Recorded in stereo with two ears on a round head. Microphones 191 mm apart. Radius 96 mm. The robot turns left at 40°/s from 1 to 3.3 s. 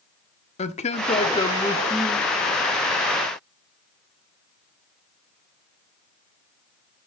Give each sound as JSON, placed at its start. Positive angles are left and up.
{"t": 0.6, "sound": "a man speaking", "azimuth_deg": 35, "distance_m": 1.0}